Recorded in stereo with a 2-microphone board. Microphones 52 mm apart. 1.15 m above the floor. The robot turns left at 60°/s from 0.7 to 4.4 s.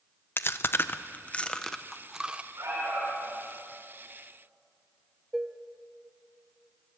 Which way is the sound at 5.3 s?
5° right (ahead or behind).